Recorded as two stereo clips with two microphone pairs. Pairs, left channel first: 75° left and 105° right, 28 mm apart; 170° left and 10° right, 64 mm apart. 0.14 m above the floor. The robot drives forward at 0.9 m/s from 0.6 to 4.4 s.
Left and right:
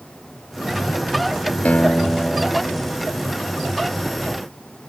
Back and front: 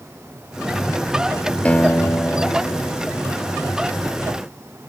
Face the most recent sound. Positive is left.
turn(degrees=155)